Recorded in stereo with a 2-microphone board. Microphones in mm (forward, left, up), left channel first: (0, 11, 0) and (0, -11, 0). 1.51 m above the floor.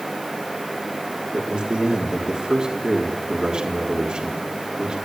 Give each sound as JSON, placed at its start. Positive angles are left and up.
{"t": 1.3, "sound": "a man speaking", "side_deg": -45, "distance_m": 4.0}